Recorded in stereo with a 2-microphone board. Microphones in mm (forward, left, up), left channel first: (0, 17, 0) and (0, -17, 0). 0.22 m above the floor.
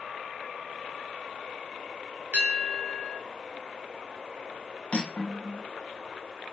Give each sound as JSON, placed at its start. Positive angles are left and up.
{"t": 2.3, "sound": "a bell", "side_deg": -45, "distance_m": 1.0}
{"t": 4.9, "sound": "cutlery clinking", "side_deg": 45, "distance_m": 0.8}